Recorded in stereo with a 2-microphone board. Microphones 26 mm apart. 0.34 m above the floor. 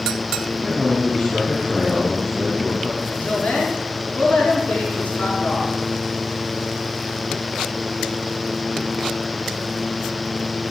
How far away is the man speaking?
About 2.5 m.